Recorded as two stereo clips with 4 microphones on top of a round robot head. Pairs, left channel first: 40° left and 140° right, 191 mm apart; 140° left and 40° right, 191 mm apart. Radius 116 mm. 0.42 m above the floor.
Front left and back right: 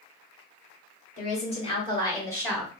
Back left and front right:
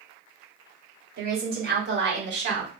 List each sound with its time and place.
1.2 s a woman speaking: 5° right, 1.7 m; by 2.7 s 45° right, 1.7 m